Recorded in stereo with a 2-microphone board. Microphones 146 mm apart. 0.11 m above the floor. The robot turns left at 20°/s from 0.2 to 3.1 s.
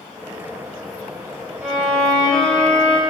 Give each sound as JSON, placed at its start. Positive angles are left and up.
{"t": 1.6, "sound": "a violin", "side_deg": -15, "distance_m": 3.5}